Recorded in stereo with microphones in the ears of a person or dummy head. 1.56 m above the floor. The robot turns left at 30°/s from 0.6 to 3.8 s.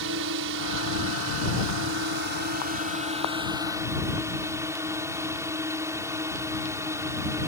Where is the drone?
70° right; by 7.5 s 165° right.